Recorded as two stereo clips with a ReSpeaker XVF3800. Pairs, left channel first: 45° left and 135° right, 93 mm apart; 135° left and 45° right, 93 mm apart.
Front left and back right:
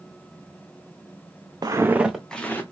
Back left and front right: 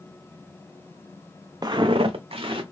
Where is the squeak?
No squeak in this recording.